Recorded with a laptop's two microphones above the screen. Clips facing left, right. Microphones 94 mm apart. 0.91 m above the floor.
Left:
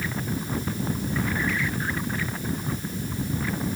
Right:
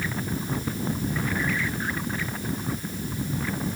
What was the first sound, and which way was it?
Only background noise.